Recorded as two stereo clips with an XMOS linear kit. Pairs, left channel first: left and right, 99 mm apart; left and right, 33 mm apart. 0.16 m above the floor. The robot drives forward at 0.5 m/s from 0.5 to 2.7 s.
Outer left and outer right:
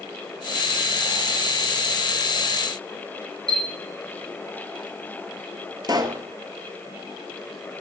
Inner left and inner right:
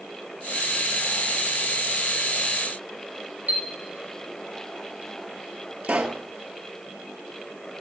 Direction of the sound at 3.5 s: 50° right (ahead or behind).